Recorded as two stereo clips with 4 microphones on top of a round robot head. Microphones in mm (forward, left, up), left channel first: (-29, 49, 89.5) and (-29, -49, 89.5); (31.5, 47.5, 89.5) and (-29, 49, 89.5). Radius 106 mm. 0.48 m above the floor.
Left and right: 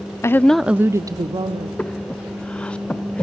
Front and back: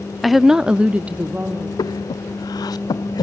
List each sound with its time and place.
0.2 s a woman speaking: 90° left, 0.7 m; by 1.7 s 115° right, 1.3 m
1.8 s breathing: 10° left, 0.5 m